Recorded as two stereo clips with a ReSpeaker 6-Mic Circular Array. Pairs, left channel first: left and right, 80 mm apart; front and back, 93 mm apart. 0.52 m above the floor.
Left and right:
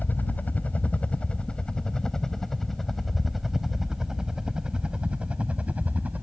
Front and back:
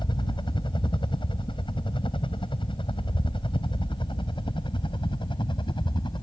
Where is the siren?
No siren in this recording.